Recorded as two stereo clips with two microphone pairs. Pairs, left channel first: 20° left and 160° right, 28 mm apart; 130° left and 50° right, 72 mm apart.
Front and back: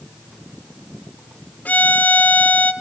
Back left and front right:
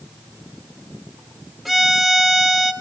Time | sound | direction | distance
1.6 | a violin | 40° left | 0.6 m